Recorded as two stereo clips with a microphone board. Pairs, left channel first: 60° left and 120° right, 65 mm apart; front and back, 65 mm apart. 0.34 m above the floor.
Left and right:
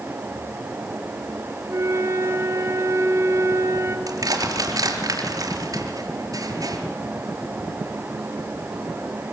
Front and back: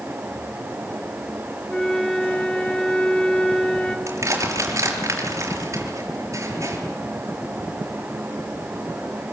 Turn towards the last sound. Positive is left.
turn(degrees=-140)